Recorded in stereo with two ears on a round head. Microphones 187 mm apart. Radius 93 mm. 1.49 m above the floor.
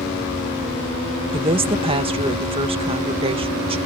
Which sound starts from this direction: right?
A woman speaking, at 1.3 s.